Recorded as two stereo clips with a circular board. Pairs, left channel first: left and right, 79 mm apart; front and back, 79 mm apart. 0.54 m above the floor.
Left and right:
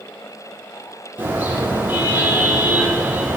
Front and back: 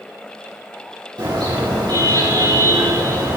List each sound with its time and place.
1.2 s a car horn: 155° right, 9.5 m